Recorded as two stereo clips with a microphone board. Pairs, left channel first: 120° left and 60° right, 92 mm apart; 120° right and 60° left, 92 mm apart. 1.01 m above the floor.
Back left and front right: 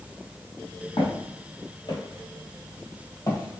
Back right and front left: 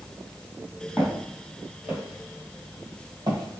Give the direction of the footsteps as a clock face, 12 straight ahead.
7 o'clock.